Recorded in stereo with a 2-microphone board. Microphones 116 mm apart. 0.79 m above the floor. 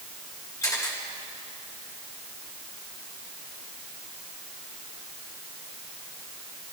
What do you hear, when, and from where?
0.6 s a camera shutter: 25° left (ahead or behind), 5 m